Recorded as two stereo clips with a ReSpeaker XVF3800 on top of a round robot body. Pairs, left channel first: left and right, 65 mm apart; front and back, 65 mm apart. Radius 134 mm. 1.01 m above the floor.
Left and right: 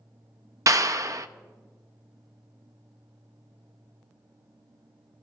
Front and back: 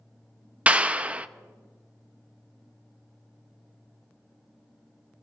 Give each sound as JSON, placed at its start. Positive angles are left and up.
{"t": 0.7, "sound": "a clap", "azimuth_deg": -110, "distance_m": 0.6}